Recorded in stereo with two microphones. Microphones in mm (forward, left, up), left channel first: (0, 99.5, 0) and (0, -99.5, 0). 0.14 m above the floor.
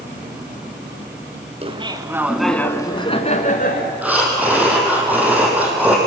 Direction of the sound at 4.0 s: 10° right (ahead or behind).